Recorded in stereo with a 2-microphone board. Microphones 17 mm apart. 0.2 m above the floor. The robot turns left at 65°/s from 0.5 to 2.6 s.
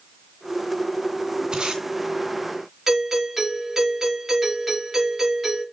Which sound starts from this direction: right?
Tape being pulled, at 1.5 s.